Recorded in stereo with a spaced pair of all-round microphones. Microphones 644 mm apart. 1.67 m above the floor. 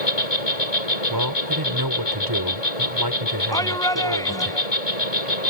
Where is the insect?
70° left (ahead or behind).